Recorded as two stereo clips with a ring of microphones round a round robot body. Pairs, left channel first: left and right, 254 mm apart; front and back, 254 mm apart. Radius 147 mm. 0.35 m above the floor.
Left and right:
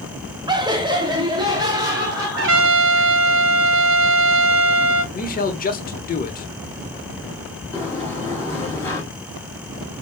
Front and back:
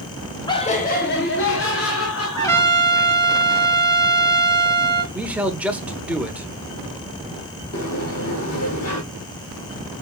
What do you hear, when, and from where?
0.5 s laughter: 45° right, 0.8 m; by 3.1 s 15° right, 2 m
2.4 s a trumpet: 75° right, 1.6 m
5.1 s a man speaking: 100° left, 1.1 m
7.7 s a sliding door: 10° left, 3.5 m